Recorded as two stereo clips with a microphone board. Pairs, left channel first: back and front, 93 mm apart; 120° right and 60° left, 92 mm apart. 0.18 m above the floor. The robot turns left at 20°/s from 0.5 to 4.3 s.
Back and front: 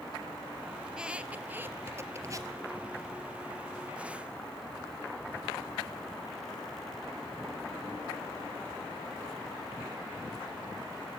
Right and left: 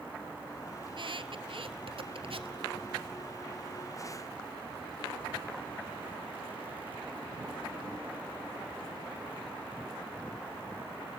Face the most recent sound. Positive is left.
turn(degrees=15)